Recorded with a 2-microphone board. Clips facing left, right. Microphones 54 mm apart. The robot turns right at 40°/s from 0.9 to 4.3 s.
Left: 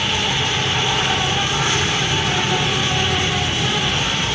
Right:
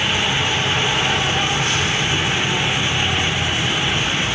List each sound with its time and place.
0.0 s an insect: 10° right, 4 m; by 4.3 s 125° left, 4 m